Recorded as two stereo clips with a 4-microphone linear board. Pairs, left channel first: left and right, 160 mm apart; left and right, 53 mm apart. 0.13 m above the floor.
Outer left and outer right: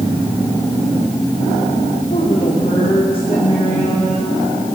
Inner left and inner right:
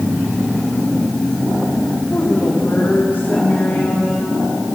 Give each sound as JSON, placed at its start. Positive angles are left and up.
{"t": 2.1, "sound": "a woman speaking", "side_deg": 40, "distance_m": 8.0}